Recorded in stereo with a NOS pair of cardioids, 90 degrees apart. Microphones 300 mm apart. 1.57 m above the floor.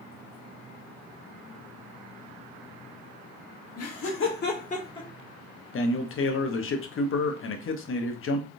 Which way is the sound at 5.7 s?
45° left.